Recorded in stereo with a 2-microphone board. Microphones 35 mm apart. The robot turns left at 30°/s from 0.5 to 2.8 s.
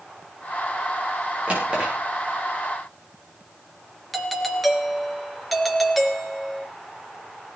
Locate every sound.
1.5 s a drawer: 30° right (ahead or behind), 8.5 m; by 1.9 s 20° right (ahead or behind), 8.5 m
4.1 s a doorbell: centre (ahead or behind), 3 m